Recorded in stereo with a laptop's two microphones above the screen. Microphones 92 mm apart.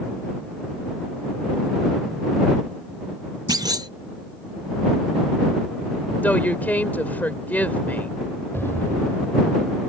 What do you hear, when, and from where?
3.5 s a clunk: 45° right (ahead or behind)
6.2 s a woman speaking: 20° left (ahead or behind)
8.5 s an explosion: 25° left (ahead or behind)